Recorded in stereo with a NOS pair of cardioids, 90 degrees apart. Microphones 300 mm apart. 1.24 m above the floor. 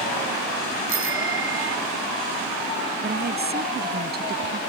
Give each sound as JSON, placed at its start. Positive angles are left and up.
{"t": 0.9, "sound": "a bicycle bell", "azimuth_deg": -45}
{"t": 3.0, "sound": "a woman speaking", "azimuth_deg": -35}